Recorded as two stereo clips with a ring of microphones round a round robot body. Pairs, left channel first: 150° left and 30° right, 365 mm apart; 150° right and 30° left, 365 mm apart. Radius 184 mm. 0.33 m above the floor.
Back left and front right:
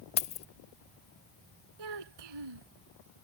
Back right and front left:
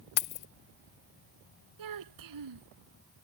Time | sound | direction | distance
0.2 | keys jangling | 145° right | ?
1.8 | a child speaking | 10° right | ?